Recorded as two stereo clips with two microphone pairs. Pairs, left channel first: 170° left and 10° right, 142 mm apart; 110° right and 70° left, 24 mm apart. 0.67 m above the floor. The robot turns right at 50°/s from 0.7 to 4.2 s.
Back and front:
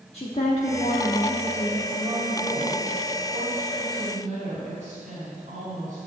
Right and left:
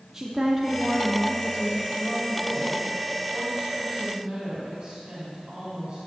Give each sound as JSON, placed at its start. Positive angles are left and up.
{"t": 0.1, "sound": "a woman speaking", "azimuth_deg": 135, "distance_m": 1.0}
{"t": 1.9, "sound": "a woman speaking", "azimuth_deg": -95, "distance_m": 3.0}